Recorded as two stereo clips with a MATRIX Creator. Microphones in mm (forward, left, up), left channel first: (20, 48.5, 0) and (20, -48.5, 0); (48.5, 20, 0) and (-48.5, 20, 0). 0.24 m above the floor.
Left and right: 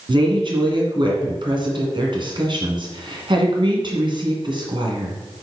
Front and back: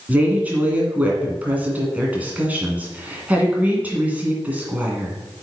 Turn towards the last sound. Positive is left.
turn(degrees=-110)